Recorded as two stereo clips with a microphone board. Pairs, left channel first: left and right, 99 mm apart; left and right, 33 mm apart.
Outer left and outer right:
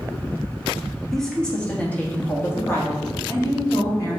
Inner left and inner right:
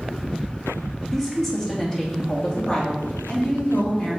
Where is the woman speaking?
5° left (ahead or behind), 1.7 m; by 4.2 s 35° left (ahead or behind), 3 m.